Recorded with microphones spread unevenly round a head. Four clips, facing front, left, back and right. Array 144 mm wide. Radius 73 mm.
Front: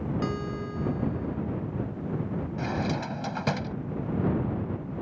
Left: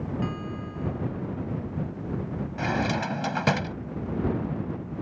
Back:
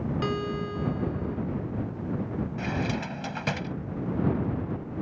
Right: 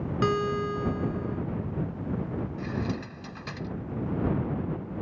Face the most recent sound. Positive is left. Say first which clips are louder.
# left 5 dB, front 2 dB
turn(degrees=75)